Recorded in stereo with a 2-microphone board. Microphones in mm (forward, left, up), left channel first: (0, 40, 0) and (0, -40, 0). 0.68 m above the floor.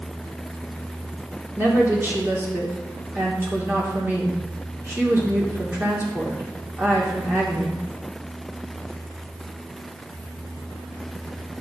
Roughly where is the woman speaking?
Right.